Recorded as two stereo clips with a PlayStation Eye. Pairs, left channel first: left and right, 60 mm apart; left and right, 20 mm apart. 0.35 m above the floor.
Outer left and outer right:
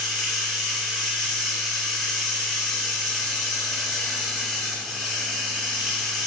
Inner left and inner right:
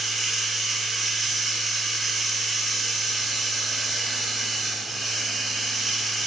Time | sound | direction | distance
0.0 | running water | 10° left (ahead or behind) | 1.8 m